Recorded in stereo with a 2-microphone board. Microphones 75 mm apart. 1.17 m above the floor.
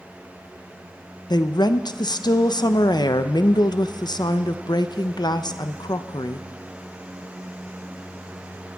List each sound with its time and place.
1.3 s a woman speaking: 70° left (ahead or behind), 0.7 m